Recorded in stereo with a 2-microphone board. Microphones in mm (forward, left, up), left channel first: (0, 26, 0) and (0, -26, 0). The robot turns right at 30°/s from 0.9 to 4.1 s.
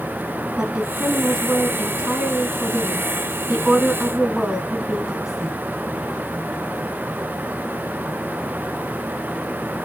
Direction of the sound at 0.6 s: 20° right (ahead or behind).